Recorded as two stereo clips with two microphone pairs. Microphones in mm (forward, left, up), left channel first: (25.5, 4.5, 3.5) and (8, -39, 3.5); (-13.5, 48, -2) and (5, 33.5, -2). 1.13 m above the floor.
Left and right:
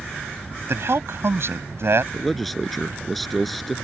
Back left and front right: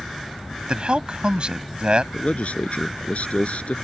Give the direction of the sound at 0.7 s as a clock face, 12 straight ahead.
3 o'clock.